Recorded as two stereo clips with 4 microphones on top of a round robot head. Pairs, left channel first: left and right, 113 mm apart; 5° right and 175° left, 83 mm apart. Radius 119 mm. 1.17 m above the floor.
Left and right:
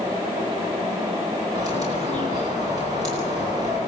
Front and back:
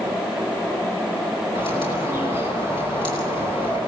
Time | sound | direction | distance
1.6 | a bird | 30° right | 9.5 m